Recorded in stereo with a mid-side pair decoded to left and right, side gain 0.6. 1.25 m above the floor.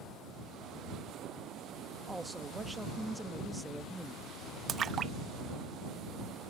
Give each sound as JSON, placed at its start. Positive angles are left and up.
{"t": 2.1, "sound": "a woman speaking", "azimuth_deg": -10}
{"t": 4.7, "sound": "a splash", "azimuth_deg": -40}